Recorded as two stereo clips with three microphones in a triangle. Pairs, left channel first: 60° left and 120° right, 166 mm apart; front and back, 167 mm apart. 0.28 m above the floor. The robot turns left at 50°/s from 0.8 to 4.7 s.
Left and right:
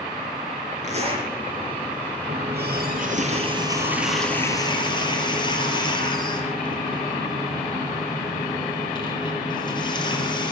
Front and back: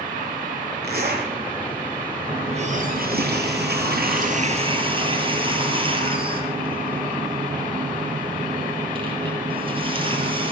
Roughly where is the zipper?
Behind.